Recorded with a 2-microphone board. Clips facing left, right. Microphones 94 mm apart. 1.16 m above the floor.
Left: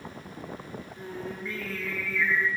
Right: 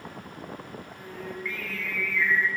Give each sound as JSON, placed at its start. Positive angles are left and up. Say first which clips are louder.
{"t": 1.0, "sound": "singing", "louder": "left 1 dB", "side_deg": 35, "distance_m": 3.5}